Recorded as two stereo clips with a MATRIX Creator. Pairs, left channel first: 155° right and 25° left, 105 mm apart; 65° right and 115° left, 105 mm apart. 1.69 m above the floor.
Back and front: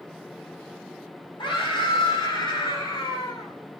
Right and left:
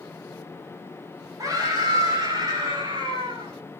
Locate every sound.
1.4 s a scream: 165° left, 7.5 m; by 3.5 s 155° left, 7.5 m